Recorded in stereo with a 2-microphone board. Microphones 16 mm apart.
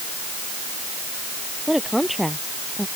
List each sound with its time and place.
1.7 s a woman speaking: 10° right (ahead or behind)